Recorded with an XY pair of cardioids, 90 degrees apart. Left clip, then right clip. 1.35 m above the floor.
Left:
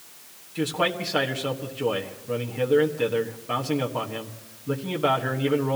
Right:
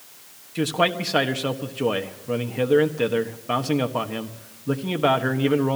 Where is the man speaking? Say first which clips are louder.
Right 3 dB; 35° right, 1.4 m.